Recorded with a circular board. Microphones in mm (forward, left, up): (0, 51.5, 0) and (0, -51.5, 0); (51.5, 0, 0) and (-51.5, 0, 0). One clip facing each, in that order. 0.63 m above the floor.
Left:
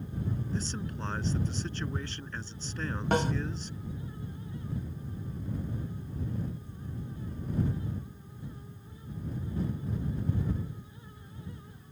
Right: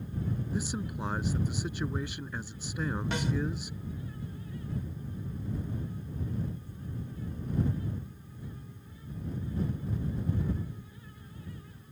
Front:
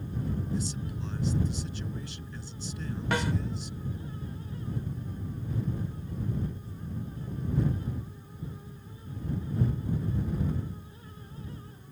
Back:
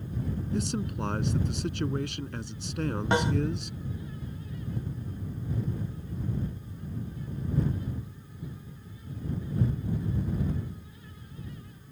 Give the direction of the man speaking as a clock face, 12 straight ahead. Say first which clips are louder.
Right 2 dB, back 4 dB; 6 o'clock.